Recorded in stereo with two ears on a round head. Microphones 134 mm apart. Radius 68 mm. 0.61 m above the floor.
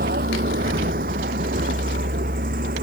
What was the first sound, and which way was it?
A vehicle, 60° right (ahead or behind).